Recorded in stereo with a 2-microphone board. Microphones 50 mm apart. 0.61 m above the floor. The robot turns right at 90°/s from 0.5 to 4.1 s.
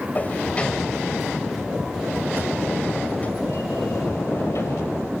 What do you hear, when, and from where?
0.1 s a sliding door: 145° left, 2.5 m; by 5.1 s 110° left, 2.5 m